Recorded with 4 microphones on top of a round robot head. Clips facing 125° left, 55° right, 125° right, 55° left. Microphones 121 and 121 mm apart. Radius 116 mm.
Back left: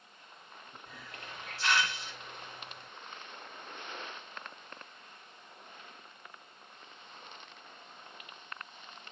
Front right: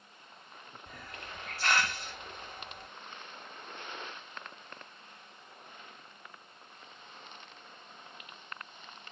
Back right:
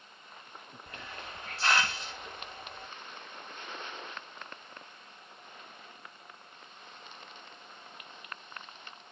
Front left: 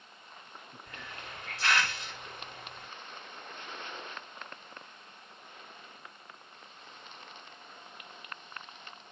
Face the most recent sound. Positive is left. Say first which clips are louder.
# front right 2 dB, back right 2 dB
turn(degrees=-75)